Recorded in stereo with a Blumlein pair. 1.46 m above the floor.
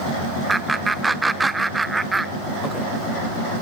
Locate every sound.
0.5 s laughter: 10° right, 0.5 m